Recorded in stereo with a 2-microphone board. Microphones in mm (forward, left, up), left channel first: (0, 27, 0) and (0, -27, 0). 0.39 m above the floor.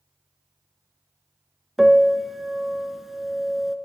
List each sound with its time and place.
1.8 s a piano: 5° right (ahead or behind), 0.8 m